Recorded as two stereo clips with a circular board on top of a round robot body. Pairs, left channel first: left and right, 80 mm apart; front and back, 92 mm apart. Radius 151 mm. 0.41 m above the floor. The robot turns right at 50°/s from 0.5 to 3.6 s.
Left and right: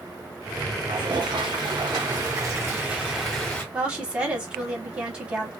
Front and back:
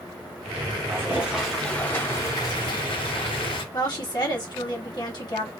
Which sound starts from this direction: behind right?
A toilet flushing, at 0.9 s.